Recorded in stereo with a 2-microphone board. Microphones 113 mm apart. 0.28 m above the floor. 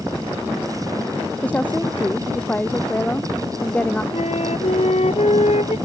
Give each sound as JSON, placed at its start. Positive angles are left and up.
{"t": 1.4, "sound": "a woman speaking", "side_deg": 15}
{"t": 4.1, "sound": "a flute", "side_deg": 75}